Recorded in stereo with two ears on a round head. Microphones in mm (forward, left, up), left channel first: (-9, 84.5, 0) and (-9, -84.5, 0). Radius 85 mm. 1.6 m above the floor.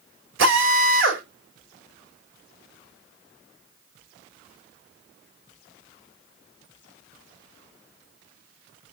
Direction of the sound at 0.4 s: 75° right (ahead or behind).